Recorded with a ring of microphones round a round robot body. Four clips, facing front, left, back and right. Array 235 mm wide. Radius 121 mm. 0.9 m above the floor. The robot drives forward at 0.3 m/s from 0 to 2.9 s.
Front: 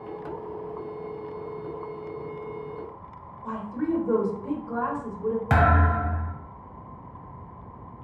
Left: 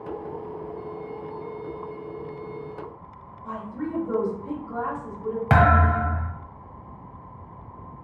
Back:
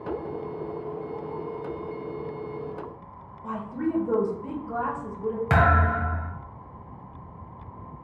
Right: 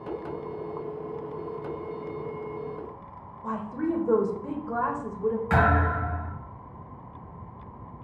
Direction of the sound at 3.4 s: 110° right.